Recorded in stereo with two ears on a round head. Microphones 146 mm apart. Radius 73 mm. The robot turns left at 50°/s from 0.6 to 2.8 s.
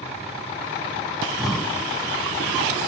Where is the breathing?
165° right, 0.8 m; by 1.9 s 160° left, 0.8 m.